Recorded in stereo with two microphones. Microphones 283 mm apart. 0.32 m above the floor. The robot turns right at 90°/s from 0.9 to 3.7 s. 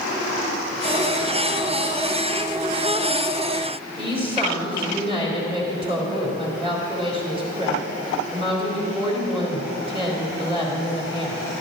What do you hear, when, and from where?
4.0 s a woman speaking: 20° right (ahead or behind), 3.5 m